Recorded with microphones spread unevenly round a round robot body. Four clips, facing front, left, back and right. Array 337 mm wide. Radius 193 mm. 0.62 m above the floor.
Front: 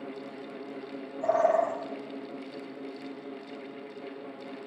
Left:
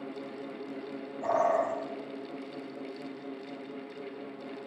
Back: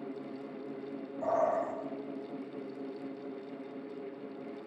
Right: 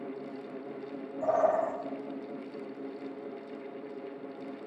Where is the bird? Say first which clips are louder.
Even, front 6 dB; 115° right, 7 m.